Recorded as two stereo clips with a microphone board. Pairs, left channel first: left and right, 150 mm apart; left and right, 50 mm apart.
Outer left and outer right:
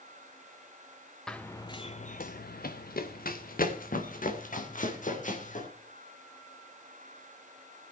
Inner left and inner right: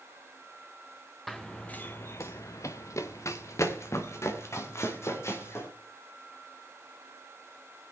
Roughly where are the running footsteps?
Centre.